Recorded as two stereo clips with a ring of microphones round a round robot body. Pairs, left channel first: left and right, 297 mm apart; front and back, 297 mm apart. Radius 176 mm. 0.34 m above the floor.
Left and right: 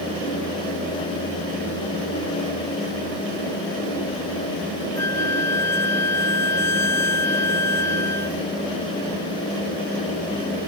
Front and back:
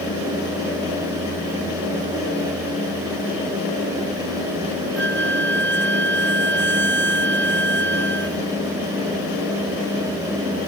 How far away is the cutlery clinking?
No cutlery clinking in this recording.